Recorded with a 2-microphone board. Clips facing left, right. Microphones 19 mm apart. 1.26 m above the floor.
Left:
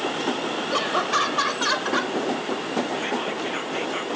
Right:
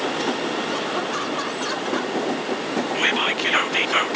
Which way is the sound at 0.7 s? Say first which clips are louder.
Left 2 dB; 35° left (ahead or behind).